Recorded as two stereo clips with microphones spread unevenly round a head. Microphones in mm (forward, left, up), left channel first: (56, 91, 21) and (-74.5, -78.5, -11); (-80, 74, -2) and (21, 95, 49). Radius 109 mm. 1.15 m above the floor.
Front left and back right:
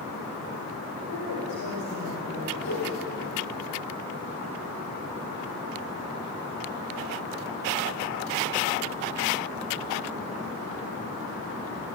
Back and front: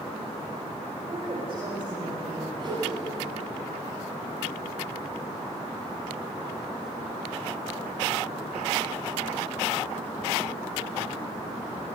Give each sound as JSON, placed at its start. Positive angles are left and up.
{"t": 1.1, "sound": "a woman speaking", "azimuth_deg": 45, "distance_m": 6.0}
{"t": 2.6, "sound": "a whoosh", "azimuth_deg": 50, "distance_m": 9.0}